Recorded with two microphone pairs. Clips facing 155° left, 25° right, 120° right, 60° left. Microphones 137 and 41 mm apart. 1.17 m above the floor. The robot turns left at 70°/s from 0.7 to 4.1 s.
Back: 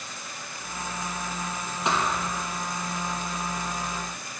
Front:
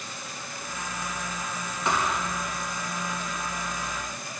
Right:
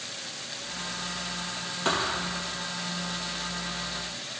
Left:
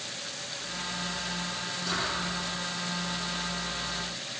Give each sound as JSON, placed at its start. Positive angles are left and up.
{"t": 1.9, "sound": "a thud", "azimuth_deg": -135, "distance_m": 4.5}